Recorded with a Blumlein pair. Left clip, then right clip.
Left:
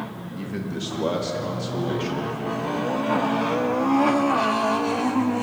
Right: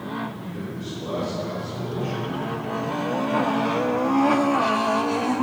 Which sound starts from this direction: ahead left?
A man speaking, at 0.2 s.